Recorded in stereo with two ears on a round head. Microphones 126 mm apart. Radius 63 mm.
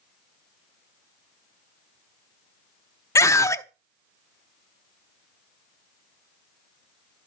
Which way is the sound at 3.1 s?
20° left (ahead or behind).